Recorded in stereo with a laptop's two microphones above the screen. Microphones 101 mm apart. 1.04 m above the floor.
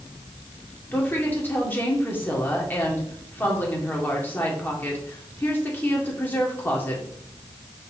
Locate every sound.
0.9 s a woman speaking: 20° left (ahead or behind), 2.5 m